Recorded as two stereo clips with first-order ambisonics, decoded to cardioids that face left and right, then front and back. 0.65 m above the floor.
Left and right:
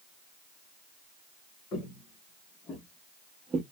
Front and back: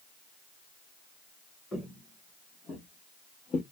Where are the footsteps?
80° left, 1.2 m; by 3.6 s 40° right, 0.8 m.